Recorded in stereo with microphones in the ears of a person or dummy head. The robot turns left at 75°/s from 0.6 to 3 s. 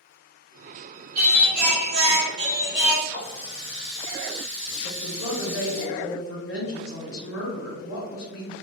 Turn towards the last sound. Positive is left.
turn(degrees=75)  # may be behind; listen again after turning